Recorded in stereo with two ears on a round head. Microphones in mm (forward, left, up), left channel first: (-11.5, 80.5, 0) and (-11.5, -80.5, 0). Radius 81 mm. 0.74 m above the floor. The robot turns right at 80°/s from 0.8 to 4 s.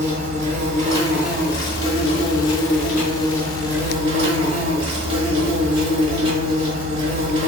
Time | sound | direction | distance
0.0 | an insect | 40° right | 1.4 m